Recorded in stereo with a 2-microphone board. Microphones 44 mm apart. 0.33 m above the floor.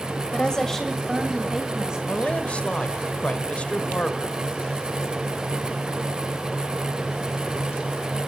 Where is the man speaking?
30° left (ahead or behind), 1.1 m.